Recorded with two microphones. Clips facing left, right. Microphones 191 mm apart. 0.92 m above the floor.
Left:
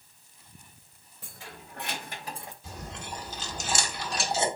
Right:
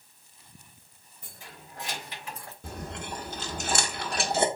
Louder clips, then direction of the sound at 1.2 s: Left 3 dB; 70° left (ahead or behind).